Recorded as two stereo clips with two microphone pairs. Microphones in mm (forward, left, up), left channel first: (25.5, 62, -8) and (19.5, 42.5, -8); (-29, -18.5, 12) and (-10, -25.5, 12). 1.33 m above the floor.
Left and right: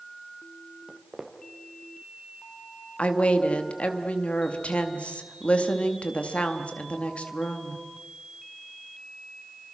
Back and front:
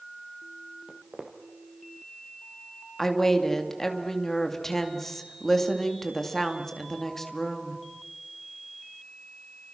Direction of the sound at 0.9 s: 40° right.